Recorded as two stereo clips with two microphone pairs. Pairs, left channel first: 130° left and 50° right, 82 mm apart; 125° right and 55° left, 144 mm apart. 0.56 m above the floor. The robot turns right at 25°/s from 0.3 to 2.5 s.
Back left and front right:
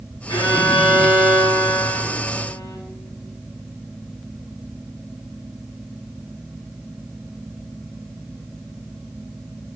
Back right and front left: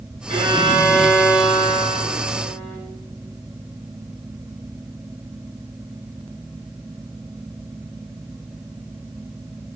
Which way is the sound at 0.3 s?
105° left.